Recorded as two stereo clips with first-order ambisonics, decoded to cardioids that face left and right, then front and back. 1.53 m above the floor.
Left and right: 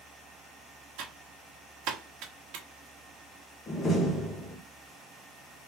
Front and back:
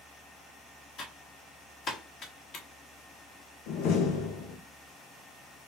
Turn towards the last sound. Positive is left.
turn(degrees=25)